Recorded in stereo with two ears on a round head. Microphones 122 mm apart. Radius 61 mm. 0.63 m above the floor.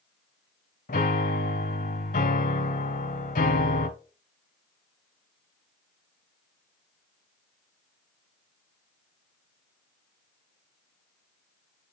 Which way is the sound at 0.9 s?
65° left (ahead or behind).